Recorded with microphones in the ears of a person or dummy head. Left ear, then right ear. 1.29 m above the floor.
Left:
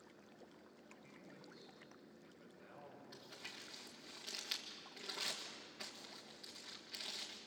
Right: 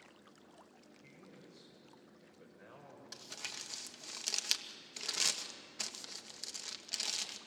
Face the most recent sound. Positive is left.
turn(degrees=-80)